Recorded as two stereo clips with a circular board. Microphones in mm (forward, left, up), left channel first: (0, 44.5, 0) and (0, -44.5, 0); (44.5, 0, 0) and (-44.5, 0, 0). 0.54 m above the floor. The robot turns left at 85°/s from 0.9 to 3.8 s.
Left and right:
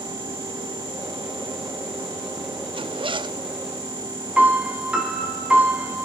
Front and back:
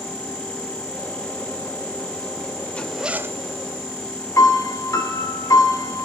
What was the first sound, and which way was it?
A zipper, 75° right.